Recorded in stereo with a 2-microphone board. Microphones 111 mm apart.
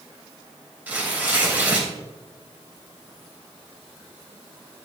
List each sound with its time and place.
0.9 s tearing paper: 15° right (ahead or behind), 2.5 m